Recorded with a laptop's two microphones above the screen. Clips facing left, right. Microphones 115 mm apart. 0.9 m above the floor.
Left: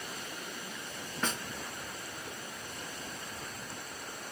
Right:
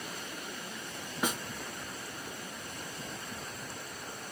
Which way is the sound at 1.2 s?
10° right (ahead or behind).